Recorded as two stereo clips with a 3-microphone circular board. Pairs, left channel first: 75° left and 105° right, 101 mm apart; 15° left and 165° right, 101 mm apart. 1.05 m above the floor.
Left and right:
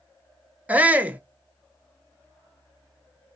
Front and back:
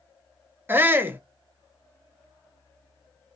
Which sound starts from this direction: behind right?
A shout, at 0.7 s.